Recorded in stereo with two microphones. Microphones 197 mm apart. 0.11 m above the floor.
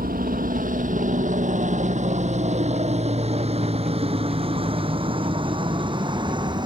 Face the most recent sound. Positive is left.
turn(degrees=-20)  # may be behind; listen again after turning